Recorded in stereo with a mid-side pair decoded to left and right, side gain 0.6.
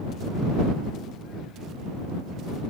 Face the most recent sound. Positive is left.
No sound to turn to.